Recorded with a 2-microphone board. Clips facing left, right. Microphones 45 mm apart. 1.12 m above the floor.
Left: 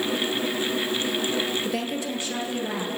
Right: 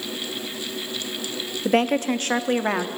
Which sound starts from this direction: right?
A woman speaking, at 1.6 s.